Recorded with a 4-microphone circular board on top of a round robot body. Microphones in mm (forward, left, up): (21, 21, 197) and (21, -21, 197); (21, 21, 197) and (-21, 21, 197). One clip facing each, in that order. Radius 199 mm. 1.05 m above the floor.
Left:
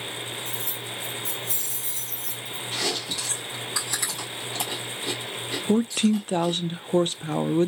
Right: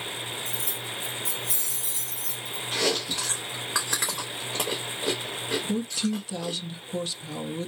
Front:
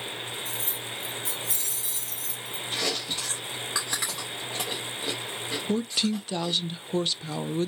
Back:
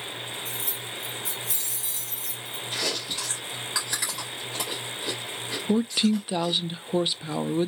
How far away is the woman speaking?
About 0.5 m.